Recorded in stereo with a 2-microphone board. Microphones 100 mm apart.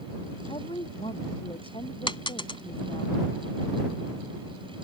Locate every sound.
0.5 s a woman speaking: 65° left (ahead or behind)
2.1 s a dropped coin: 60° left (ahead or behind)